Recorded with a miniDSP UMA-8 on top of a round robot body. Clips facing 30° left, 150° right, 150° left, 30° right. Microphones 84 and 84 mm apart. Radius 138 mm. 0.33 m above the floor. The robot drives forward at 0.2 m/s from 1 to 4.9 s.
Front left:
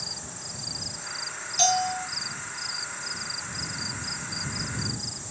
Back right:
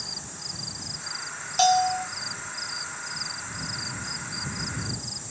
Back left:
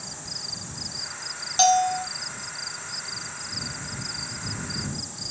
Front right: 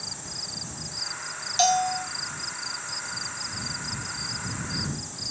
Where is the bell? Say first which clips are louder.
Back right 5 dB, back left 3 dB; 165° right, 1.4 m.